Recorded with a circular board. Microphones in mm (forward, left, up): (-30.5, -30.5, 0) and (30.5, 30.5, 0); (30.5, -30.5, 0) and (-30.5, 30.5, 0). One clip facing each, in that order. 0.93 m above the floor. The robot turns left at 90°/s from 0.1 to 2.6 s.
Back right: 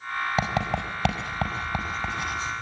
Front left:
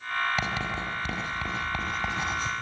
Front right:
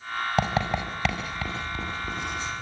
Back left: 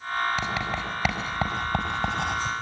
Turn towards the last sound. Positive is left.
turn(degrees=75)